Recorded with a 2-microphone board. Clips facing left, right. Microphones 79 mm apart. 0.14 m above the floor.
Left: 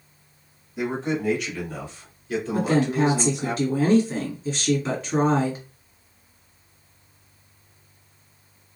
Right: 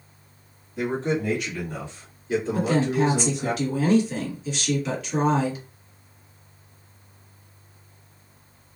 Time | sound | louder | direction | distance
0.8 | a man speaking | right 1 dB | 5° left (ahead or behind) | 1.8 m
2.5 | a woman speaking | left 2 dB | 40° left (ahead or behind) | 1.5 m